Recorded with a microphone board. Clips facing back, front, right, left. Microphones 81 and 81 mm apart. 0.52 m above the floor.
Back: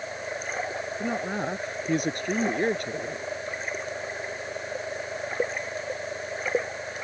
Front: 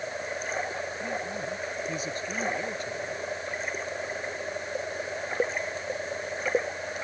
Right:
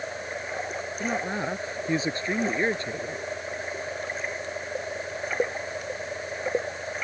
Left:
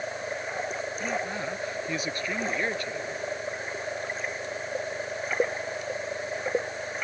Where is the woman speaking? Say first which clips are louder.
Back 7 dB, right 4 dB; 155° right.